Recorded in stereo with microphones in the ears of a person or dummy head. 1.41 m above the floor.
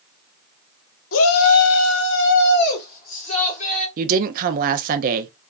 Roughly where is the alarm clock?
No alarm clock in this recording.